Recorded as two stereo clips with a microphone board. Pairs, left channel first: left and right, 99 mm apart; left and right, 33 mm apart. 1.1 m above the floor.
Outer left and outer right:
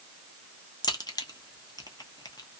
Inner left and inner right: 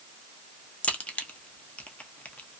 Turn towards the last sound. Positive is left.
turn(degrees=40)  # may be behind; listen again after turning